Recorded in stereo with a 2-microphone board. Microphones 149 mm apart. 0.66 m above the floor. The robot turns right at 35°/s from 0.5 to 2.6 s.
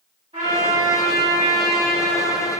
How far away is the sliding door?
I don't hear a sliding door.